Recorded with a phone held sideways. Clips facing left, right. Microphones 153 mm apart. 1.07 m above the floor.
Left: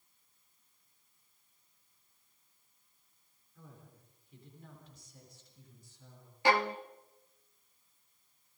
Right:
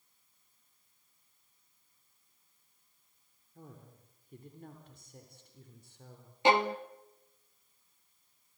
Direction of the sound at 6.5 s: 20° right (ahead or behind).